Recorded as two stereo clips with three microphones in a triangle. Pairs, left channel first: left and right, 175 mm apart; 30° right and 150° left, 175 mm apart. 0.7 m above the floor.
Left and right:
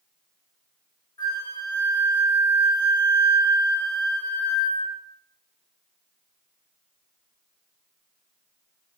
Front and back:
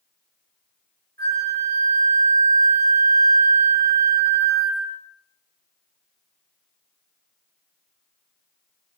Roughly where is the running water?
No running water in this recording.